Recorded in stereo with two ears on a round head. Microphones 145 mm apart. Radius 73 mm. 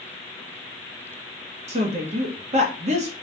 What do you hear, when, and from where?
1.7 s a woman speaking: 45° right (ahead or behind), 1.0 m